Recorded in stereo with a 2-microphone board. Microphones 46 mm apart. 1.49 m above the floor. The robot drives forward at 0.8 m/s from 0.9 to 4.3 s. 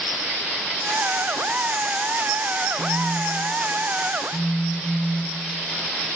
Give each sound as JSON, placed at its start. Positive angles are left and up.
{"t": 2.8, "sound": "a phone buzzing", "side_deg": 50, "distance_m": 3.5}